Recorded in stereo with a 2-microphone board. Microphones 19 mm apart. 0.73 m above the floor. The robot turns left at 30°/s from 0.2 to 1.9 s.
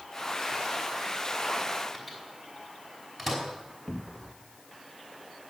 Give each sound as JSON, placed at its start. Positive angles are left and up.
{"t": 1.9, "sound": "a microwave", "side_deg": 5, "distance_m": 5.0}
{"t": 3.9, "sound": "a cupboard door", "side_deg": -10, "distance_m": 1.1}